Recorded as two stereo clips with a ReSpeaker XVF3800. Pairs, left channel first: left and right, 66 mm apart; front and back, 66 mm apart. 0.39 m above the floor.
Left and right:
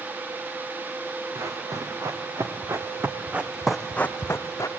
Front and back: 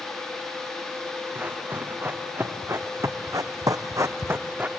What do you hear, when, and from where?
1.4 s running footsteps: 115° right, 2.5 m; by 4.7 s 120° left, 1.1 m